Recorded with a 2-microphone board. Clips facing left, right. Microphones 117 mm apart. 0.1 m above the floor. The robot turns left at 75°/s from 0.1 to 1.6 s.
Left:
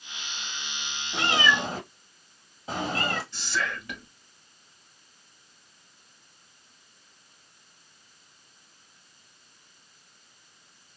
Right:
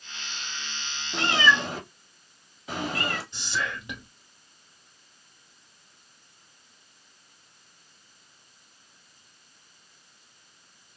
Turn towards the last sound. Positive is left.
turn(degrees=-20)  # may be behind; listen again after turning